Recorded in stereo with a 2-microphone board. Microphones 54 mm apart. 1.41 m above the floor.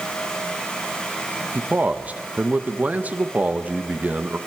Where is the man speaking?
30° right (ahead or behind), 1.5 m.